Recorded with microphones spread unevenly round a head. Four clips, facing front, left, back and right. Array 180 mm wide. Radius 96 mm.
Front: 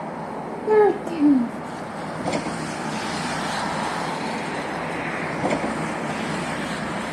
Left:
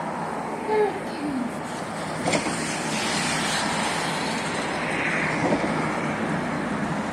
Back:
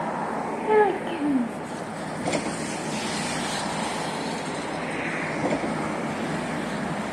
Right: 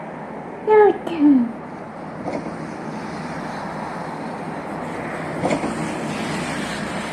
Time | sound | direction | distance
0.7 | a child speaking | 60° right | 0.5 m